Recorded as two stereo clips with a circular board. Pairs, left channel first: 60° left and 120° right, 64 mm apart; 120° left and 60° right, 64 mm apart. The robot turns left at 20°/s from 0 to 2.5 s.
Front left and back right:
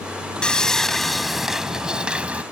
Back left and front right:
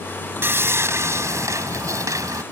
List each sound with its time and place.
0.4 s sawing: 15° right; by 2.4 s 55° right